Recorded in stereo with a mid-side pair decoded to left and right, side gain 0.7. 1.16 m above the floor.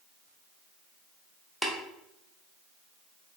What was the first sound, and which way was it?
Tapping, 10° left.